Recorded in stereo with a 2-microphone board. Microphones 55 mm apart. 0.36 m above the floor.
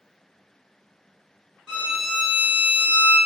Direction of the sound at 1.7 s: 10° right (ahead or behind).